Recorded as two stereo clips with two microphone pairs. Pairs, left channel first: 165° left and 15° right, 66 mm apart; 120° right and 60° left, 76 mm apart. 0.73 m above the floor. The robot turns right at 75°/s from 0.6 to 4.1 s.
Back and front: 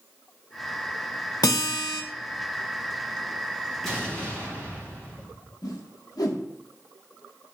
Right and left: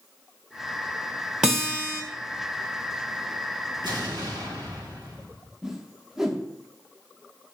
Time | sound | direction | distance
1.4 | a guitar | 140° left | 1.0 m
3.8 | an explosion | 75° left | 2.5 m
5.6 | a whoosh | 145° left | 0.9 m